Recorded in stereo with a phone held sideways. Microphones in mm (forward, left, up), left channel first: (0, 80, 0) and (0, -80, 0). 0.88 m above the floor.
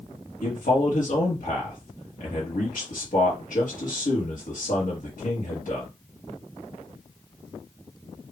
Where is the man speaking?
60° left (ahead or behind), 1.5 m.